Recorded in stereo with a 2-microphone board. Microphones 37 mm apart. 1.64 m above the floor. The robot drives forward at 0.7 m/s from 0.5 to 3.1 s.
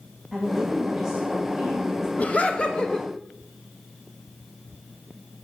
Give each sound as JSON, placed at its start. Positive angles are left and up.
{"t": 0.3, "sound": "a woman speaking", "side_deg": -10, "distance_m": 2.0}
{"t": 2.2, "sound": "laughter", "side_deg": 40, "distance_m": 0.9}